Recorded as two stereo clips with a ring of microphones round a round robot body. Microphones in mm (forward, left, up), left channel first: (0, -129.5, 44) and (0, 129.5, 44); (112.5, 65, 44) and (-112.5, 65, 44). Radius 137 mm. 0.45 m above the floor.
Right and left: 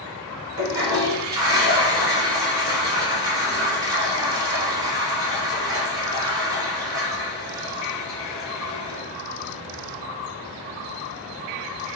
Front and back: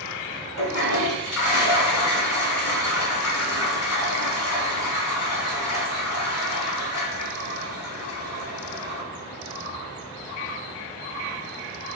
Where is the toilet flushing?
15° left, 1.3 m.